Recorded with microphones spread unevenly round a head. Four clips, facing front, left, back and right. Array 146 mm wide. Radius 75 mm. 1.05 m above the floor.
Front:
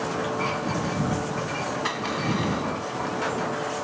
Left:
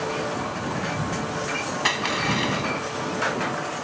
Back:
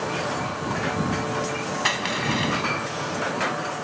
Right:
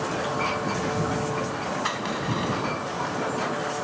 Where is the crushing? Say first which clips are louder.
Left 3 dB, back 1 dB; 130° left.